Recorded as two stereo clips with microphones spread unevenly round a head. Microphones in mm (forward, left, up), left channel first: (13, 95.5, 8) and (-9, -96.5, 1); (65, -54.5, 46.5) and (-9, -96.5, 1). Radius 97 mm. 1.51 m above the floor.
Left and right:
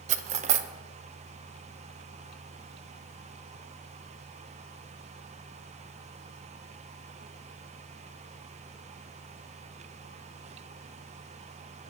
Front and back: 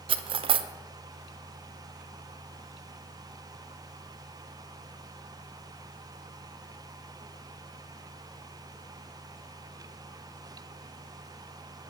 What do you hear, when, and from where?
0.1 s cutlery clinking: 120° right, 0.6 m